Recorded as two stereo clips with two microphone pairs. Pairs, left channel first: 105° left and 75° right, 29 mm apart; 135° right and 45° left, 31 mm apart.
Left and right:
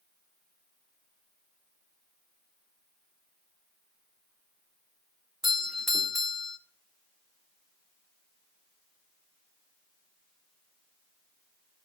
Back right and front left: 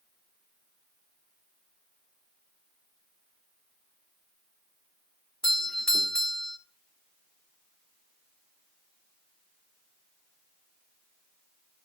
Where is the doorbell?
150° right, 1.7 m.